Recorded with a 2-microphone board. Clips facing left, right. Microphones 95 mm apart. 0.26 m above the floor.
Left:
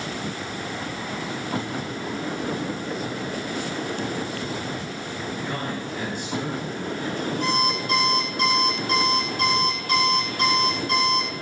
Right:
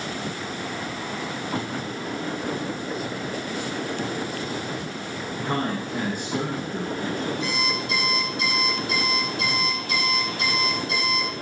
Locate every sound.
5.4 s a man speaking: 55° right (ahead or behind), 2.5 m
7.4 s an alarm clock: 55° left (ahead or behind), 5 m